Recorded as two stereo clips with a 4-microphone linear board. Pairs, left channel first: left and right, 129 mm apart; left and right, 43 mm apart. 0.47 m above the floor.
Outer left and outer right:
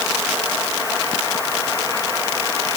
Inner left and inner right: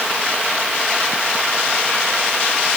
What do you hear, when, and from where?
Only background noise.